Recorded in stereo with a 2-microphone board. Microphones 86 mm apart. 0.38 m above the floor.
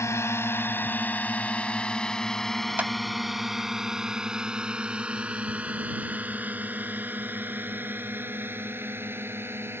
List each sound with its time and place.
0.0 s a drone: 35° left (ahead or behind); by 9.8 s 25° right (ahead or behind)
2.8 s a clap: 20° right (ahead or behind)